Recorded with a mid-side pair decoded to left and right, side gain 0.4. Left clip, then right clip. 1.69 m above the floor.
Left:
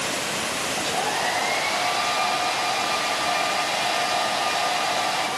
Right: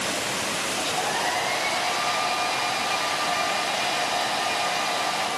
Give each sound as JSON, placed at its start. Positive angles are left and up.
{"t": 0.8, "sound": "a hair dryer", "azimuth_deg": 35, "distance_m": 7.0}